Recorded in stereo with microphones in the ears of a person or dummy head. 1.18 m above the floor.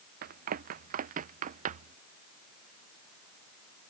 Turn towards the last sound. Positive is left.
turn(degrees=-40)  # may be behind; listen again after turning